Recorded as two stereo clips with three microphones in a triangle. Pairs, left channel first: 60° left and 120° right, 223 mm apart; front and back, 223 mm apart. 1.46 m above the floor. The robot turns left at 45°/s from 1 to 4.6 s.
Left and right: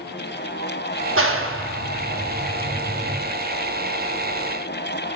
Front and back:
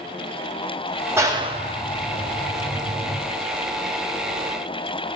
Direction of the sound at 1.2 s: 100° right.